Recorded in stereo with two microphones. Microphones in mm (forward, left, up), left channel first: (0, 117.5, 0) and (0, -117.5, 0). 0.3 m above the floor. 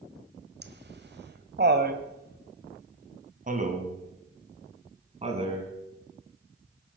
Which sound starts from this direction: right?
Laughter, at 0.6 s.